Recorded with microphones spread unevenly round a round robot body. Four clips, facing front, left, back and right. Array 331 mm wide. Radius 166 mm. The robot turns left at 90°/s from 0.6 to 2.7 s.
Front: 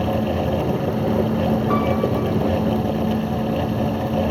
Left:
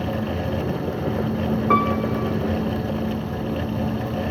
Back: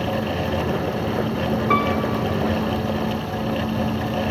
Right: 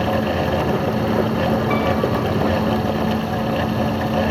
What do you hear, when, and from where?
1.7 s a piano: 100° left, 1.0 m; by 2.4 s 40° left, 1.0 m